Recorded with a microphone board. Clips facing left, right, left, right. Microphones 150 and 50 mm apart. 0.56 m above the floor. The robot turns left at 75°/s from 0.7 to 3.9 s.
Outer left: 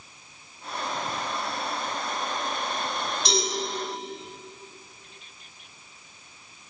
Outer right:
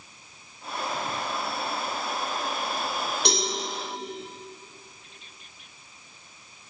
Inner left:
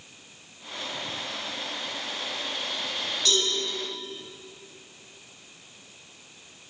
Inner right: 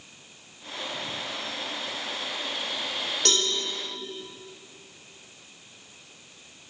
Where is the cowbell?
80° right, 6.5 m; by 3.5 s 75° right (ahead or behind), 6.5 m.